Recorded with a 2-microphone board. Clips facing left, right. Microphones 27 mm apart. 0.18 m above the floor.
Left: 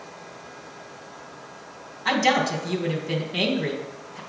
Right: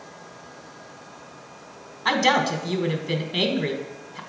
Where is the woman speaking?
20° right (ahead or behind), 1.0 m.